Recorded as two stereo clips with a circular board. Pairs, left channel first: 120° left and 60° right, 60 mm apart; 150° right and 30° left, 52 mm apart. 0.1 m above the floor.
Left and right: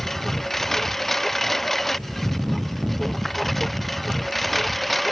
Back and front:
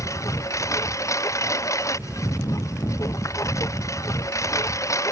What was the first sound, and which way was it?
A lawn mower, 155° right.